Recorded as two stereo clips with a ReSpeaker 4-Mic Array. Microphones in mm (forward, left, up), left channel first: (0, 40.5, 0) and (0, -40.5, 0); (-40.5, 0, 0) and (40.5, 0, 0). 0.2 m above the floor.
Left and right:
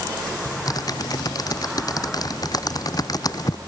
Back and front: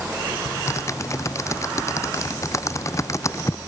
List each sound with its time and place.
0.5 s typing on a keyboard: 130° left